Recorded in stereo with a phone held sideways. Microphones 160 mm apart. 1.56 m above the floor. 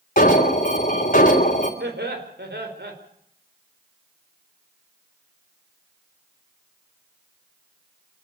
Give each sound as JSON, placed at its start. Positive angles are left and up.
{"t": 0.2, "sound": "an alarm", "side_deg": 50, "distance_m": 3.5}
{"t": 1.8, "sound": "laughter", "side_deg": -85, "distance_m": 4.5}